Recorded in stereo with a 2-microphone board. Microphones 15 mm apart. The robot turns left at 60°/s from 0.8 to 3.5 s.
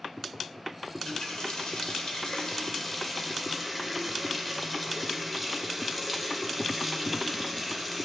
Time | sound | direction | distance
0.9 | a running tap | 150° left | 1.6 m